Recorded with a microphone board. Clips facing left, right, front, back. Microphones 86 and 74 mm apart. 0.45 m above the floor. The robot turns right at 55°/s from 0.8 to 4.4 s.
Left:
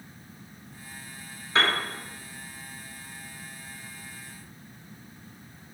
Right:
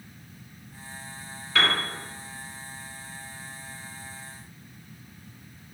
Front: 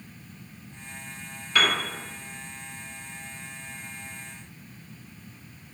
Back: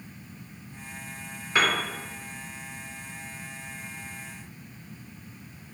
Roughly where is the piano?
Behind left.